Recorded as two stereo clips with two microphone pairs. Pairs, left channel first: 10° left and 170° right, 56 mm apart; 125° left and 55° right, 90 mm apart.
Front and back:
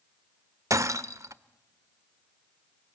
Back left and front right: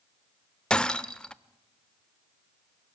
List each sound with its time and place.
0.7 s breaking glass: 160° right, 0.8 m